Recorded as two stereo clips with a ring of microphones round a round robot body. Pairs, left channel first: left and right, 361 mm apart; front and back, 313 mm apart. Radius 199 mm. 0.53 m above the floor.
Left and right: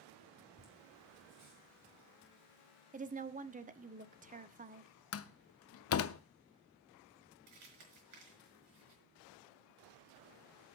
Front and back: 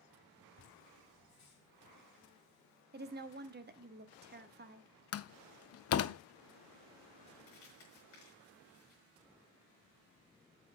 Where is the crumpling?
55° right, 5.5 m.